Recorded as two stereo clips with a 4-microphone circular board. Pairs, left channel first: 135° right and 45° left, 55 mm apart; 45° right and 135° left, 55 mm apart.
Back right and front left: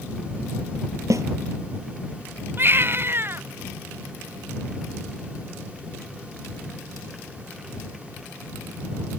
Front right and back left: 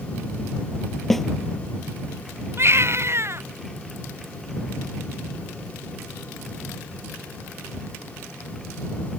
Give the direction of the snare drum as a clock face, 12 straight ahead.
11 o'clock.